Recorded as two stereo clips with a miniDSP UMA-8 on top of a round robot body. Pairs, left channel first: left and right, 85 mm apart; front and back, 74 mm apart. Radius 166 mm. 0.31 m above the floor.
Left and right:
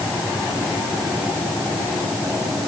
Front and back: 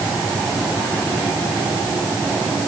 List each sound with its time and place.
Only background noise.